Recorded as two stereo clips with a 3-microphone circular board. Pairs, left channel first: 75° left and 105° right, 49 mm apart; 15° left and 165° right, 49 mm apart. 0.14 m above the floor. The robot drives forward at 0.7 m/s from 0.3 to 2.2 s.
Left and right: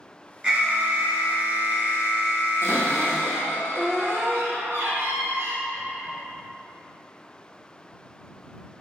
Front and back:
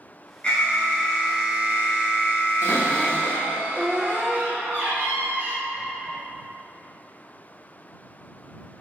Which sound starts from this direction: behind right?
A cupboard door, at 2.6 s.